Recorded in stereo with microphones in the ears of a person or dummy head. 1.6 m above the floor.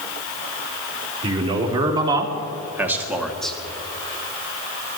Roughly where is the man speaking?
Right.